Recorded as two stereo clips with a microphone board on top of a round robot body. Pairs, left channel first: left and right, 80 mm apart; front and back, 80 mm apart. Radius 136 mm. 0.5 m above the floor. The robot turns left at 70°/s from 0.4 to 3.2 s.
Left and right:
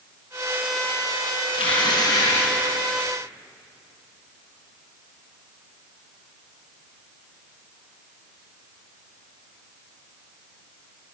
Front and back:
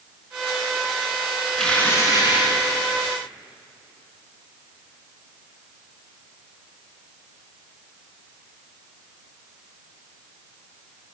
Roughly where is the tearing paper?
Left.